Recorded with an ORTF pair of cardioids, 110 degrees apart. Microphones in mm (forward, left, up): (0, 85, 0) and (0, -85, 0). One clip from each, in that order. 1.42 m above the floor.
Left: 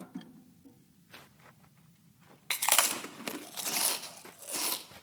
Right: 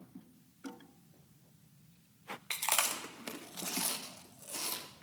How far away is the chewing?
About 0.7 m.